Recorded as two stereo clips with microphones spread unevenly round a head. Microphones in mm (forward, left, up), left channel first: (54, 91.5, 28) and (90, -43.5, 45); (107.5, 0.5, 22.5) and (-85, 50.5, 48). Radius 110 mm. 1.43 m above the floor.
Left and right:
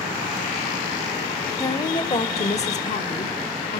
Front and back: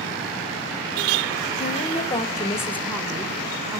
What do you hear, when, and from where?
1.6 s a woman speaking: 35° left, 1.1 m; by 3.8 s 85° left, 1.7 m